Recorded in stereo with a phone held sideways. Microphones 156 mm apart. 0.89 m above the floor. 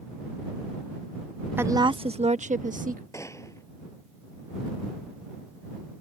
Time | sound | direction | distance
1.6 | a woman speaking | 10° right (ahead or behind) | ?
3.1 | a gunshot | 20° left (ahead or behind) | ?